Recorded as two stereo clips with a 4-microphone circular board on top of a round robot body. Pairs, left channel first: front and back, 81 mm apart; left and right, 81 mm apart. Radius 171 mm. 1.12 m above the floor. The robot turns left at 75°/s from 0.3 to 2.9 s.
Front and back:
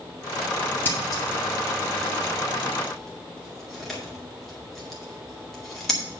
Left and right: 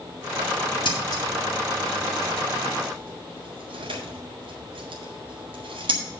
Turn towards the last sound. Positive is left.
turn(degrees=-90)